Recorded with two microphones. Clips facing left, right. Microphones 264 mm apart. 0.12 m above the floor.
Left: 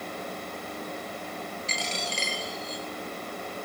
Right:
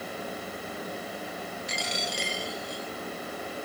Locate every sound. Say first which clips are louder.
1.7 s a dropped coin: even; 15° right (ahead or behind), 4 m